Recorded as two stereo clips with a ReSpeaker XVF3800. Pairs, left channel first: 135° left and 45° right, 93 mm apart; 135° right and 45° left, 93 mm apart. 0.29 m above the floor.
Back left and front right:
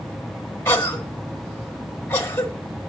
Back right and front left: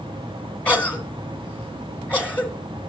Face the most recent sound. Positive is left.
turn(degrees=165)